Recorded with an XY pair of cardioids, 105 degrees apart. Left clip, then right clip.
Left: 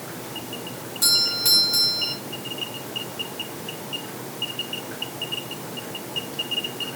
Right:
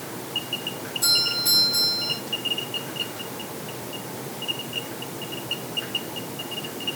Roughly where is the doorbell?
Ahead left.